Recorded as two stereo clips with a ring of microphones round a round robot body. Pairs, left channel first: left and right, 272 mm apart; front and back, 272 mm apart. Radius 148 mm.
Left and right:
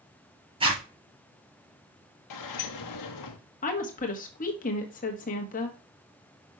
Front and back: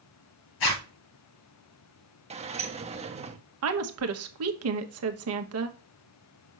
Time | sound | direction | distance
0.6 | a zipper | 20° right | 4.5 m
2.3 | a sliding door | 110° left | 1.0 m
3.6 | a woman speaking | 150° left | 1.2 m